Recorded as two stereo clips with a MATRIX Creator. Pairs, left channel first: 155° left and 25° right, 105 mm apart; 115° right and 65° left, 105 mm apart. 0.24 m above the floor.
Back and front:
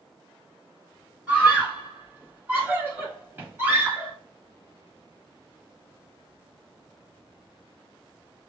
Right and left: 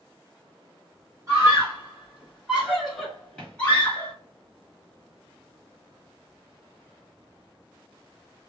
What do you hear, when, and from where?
1.3 s a scream: 35° left, 1.6 m; by 4.1 s 70° right, 1.4 m